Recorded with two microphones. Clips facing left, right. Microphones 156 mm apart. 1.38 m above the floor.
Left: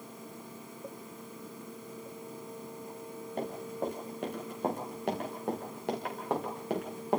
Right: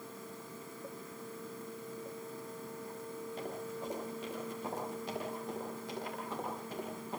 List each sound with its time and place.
3.4 s running footsteps: 55° left (ahead or behind), 8 m; by 7.2 s 80° left, 7 m